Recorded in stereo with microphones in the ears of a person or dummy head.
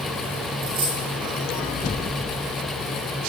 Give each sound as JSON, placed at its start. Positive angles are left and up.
{"t": 0.6, "sound": "a dropped coin", "side_deg": -35, "distance_m": 7.0}